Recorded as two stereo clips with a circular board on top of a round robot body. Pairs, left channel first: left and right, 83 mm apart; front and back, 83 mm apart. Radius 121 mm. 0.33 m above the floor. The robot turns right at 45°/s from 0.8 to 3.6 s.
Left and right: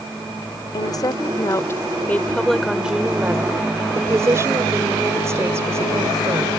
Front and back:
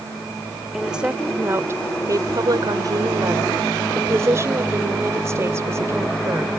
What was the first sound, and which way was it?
A woman speaking, 95° left.